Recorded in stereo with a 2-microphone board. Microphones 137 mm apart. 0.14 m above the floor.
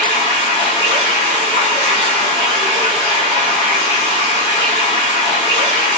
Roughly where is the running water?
Left.